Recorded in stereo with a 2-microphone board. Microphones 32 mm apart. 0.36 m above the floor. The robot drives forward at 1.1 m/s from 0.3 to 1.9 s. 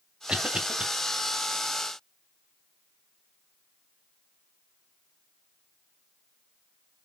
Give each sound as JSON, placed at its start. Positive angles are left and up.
{"t": 0.3, "sound": "a cough", "side_deg": -35, "distance_m": 1.9}